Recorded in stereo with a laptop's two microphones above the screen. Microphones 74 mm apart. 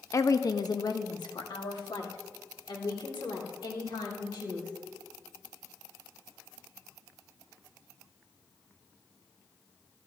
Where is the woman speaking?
45° left (ahead or behind), 0.7 m; by 4.7 s 85° left, 3.5 m.